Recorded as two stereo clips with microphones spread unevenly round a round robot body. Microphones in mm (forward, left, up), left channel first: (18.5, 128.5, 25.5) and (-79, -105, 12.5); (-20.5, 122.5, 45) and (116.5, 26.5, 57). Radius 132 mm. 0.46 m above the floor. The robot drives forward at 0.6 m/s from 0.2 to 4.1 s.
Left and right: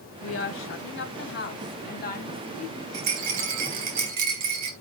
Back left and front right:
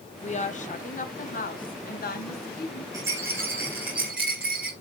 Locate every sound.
0.2 s a woman speaking: 100° left, 3 m; by 2.8 s 130° left, 3.5 m
2.9 s a rattle: 110° right, 5 m; by 4.7 s 120° right, 5 m